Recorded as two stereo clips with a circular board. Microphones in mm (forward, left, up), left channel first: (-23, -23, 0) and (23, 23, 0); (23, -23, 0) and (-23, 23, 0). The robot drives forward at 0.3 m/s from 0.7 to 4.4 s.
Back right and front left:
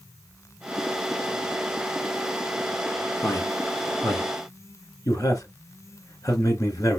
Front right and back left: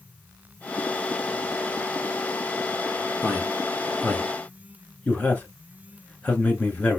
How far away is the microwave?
I don't hear a microwave.